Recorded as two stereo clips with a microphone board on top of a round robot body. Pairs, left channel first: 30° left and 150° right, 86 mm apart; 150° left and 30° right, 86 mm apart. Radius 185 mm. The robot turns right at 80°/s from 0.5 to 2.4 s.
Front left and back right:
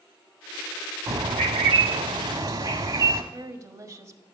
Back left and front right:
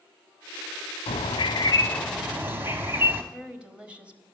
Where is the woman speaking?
105° right, 1.9 m.